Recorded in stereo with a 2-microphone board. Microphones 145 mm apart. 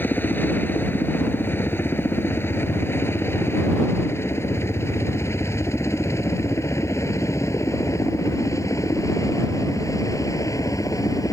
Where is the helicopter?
15° left (ahead or behind); by 11.3 s 25° left (ahead or behind).